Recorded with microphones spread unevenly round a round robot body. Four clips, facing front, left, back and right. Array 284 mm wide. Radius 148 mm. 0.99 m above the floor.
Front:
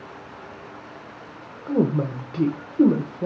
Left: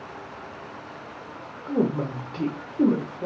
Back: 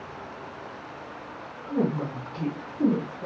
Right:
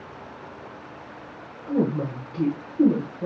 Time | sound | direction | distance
1.7 | a woman speaking | 5° right | 0.6 m